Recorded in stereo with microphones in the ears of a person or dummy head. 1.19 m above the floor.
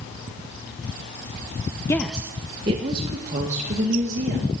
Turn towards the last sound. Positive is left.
turn(degrees=-40)  # may be behind; listen again after turning